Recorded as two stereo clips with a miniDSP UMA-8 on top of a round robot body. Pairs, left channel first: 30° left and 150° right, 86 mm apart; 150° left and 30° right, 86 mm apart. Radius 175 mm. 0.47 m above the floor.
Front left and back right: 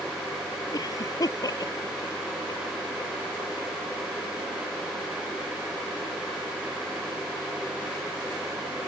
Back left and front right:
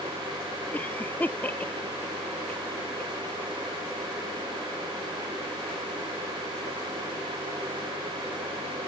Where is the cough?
80° left.